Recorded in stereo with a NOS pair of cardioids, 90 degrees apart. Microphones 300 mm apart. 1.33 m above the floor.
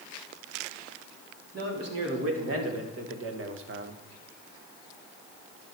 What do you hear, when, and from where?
1.5 s a man speaking: 50° right, 3.5 m; by 4.0 s 35° right, 0.8 m